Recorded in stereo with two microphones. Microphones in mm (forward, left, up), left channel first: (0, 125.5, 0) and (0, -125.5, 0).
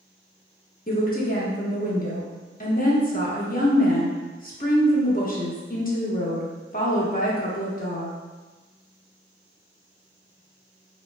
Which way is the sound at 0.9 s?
35° left (ahead or behind).